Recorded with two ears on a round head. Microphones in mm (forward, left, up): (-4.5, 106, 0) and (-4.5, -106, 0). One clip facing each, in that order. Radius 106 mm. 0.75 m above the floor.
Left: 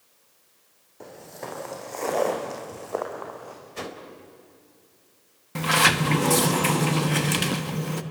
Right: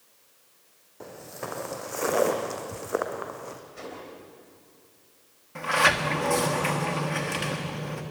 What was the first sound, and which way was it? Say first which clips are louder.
Footsteps: even; centre (ahead or behind).